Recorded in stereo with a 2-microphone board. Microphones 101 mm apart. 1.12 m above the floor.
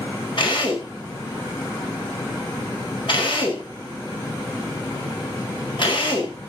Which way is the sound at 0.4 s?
55° left (ahead or behind).